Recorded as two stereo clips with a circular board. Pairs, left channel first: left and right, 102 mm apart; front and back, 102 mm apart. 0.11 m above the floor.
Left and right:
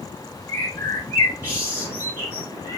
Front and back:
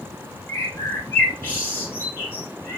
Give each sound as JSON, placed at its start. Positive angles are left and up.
{"t": 0.5, "sound": "a bird", "azimuth_deg": 50, "distance_m": 1.2}